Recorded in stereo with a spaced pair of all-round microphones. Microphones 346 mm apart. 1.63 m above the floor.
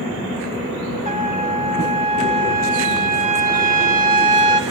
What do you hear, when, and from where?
1.1 s a trumpet: 20° right (ahead or behind), 3.5 m